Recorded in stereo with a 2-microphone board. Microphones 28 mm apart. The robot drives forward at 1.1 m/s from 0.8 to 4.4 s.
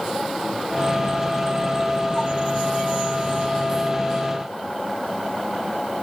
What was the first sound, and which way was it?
Only background noise.